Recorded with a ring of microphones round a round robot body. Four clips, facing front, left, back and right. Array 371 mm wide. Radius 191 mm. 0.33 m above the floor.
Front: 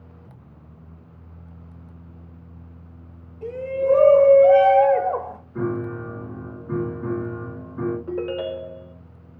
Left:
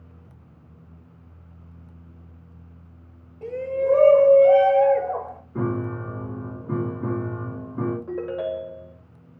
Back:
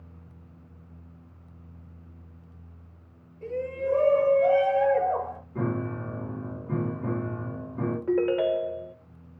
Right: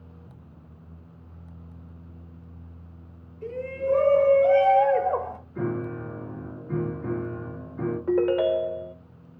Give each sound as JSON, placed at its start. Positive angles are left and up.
{"t": 3.4, "sound": "a shout", "azimuth_deg": 60, "distance_m": 1.8}
{"t": 5.5, "sound": "a piano", "azimuth_deg": 85, "distance_m": 3.5}
{"t": 8.1, "sound": "a ringtone", "azimuth_deg": -105, "distance_m": 0.8}